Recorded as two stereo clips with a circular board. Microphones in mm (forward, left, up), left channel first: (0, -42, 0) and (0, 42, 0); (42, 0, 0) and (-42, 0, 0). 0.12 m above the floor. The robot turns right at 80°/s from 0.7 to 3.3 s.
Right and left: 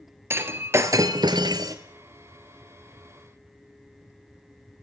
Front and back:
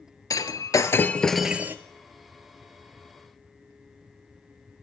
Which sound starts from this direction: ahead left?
Breaking glass, at 0.3 s.